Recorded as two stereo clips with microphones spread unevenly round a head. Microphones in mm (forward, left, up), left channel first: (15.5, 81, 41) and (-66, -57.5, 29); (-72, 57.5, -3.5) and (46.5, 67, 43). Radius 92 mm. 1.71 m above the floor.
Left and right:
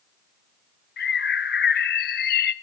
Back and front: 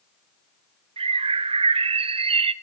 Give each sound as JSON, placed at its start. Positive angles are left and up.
{"t": 1.0, "sound": "a bird", "azimuth_deg": 25, "distance_m": 0.8}